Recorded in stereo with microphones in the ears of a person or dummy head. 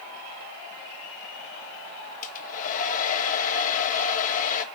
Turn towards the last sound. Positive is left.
turn(degrees=45)  # may be behind; listen again after turning